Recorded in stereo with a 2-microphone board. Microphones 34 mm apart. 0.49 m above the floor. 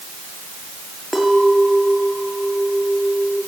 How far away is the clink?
About 6.5 m.